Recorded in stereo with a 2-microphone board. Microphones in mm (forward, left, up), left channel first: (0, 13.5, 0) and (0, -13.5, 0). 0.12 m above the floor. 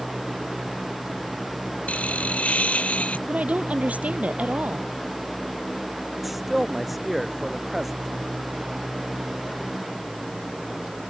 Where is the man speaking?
5° right (ahead or behind).